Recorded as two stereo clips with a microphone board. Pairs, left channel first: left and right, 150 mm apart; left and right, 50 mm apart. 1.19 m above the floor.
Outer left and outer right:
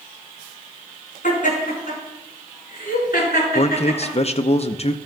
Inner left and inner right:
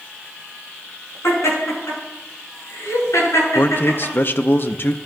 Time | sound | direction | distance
1.2 | laughter | 65° left (ahead or behind) | 6 m
3.5 | a man speaking | 45° left (ahead or behind) | 0.6 m